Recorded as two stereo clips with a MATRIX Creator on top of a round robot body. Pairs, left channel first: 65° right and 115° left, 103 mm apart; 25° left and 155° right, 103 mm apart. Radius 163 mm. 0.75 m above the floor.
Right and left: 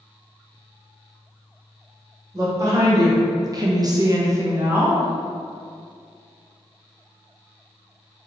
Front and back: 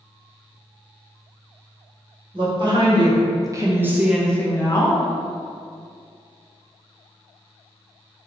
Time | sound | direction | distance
2.3 | a woman speaking | 170° left | 1.3 m